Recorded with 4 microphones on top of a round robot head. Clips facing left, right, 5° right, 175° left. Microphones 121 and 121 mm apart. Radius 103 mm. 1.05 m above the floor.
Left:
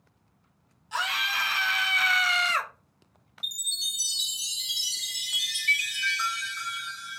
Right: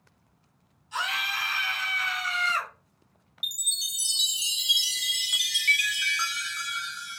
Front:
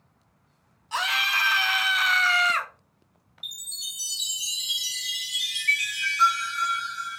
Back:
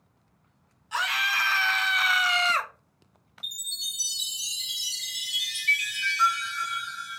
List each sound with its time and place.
0.9 s a scream: 55° left, 1.3 m; by 2.7 s 130° left, 0.6 m
3.4 s a chime: 120° right, 1.0 m